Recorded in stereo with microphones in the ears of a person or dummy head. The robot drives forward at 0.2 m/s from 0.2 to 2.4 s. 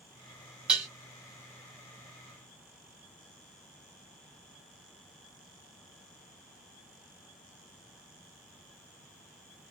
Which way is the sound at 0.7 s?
5° right (ahead or behind).